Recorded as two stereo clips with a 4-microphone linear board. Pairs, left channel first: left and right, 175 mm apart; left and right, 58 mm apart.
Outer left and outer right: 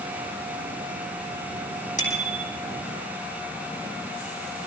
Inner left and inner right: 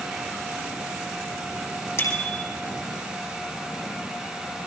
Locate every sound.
2.0 s a bicycle bell: 50° left (ahead or behind), 3.5 m